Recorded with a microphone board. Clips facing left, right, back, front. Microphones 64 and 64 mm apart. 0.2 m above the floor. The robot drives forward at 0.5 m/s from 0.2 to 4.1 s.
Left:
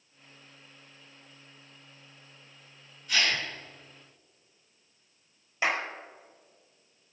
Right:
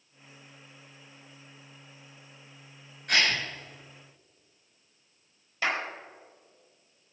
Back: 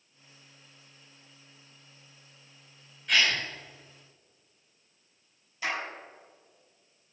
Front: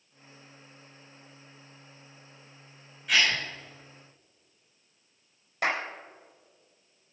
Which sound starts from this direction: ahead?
A clap, at 5.6 s.